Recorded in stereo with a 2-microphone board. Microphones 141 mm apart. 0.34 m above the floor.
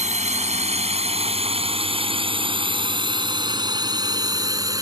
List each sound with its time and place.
0.0 s a drone: 55° right (ahead or behind); by 4.8 s 25° right (ahead or behind)